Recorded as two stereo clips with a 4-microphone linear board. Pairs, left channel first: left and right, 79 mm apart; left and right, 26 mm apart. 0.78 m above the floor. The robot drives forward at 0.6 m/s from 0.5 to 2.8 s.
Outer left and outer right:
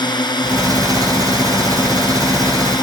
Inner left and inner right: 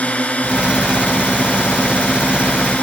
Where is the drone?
65° left (ahead or behind).